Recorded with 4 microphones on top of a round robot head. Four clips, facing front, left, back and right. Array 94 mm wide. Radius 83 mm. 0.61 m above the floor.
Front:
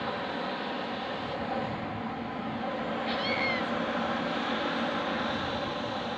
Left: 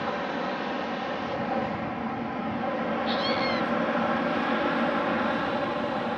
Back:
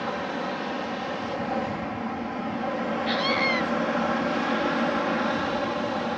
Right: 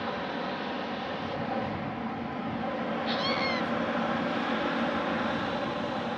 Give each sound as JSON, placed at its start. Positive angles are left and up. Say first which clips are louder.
{"t": 0.0, "sound": "an aircraft", "louder": "left 3 dB, back 4 dB", "azimuth_deg": 135}
{"t": 3.1, "sound": "a scream", "louder": "left 2 dB, back 6 dB", "azimuth_deg": -165}